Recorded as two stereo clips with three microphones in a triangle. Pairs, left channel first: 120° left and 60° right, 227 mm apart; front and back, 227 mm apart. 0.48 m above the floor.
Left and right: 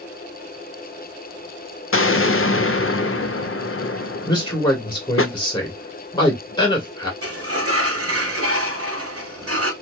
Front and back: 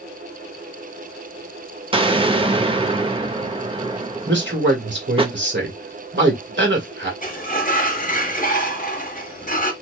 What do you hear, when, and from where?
1.9 s an explosion: 120° left, 0.6 m
4.3 s a man speaking: 175° right, 1.9 m
7.2 s a sliding door: 55° right, 0.8 m